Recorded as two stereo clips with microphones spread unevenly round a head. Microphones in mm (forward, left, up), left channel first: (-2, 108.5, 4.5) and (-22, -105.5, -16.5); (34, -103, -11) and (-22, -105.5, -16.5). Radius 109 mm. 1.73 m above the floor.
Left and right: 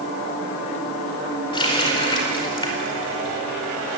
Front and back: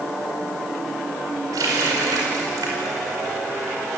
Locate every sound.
1.5 s a running tap: 150° left, 4.5 m